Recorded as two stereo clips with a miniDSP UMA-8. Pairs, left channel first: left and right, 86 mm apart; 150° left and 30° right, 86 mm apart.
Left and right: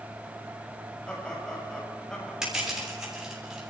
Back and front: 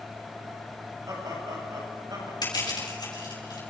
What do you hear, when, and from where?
1.1 s laughter: 10° left, 7.5 m; by 2.3 s 5° left, 7.5 m
2.4 s crushing: 175° right, 8.5 m